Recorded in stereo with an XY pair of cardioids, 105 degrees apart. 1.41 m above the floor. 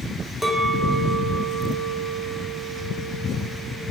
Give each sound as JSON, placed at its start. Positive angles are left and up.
{"t": 0.4, "sound": "a clink", "azimuth_deg": -15, "distance_m": 3.5}